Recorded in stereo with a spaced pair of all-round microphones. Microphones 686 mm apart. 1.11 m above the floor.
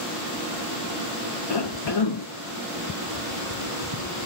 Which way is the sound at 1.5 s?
40° left (ahead or behind).